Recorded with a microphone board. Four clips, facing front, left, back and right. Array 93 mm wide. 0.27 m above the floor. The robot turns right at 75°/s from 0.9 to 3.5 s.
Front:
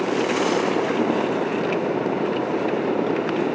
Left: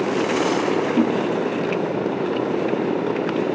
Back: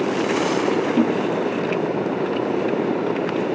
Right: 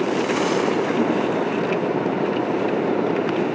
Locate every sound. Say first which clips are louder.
1.0 s a whoosh: left 1 dB, back 2 dB; 135° left, 1.6 m; by 1.2 s 150° left, 1.6 m